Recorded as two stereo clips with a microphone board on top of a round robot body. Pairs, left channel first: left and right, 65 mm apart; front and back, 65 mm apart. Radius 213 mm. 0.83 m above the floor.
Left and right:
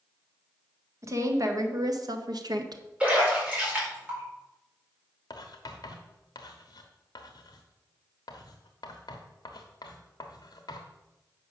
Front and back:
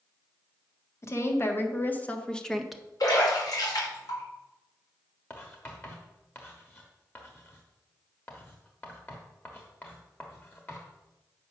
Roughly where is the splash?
Ahead.